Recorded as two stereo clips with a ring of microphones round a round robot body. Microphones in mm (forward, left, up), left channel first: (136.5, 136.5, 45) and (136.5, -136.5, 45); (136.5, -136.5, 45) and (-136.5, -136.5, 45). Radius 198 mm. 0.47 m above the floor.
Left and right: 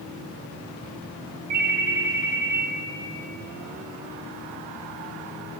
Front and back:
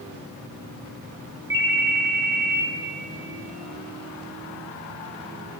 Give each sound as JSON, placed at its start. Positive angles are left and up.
{"t": 1.5, "sound": "a ringtone", "azimuth_deg": -105, "distance_m": 2.0}